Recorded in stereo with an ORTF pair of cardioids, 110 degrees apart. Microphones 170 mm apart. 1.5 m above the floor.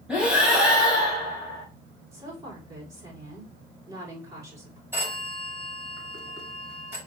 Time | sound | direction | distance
0.1 | breathing | 5° right | 3.5 m
2.1 | a woman speaking | 20° right | 5 m
4.9 | a phone ringing | 15° right | 5 m